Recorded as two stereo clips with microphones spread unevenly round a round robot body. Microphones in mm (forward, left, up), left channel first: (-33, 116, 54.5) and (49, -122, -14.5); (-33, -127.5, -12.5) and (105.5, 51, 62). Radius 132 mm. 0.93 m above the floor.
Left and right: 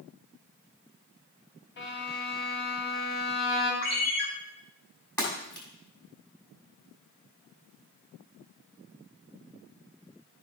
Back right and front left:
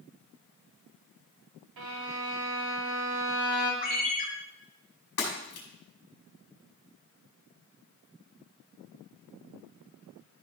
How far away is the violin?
About 3 m.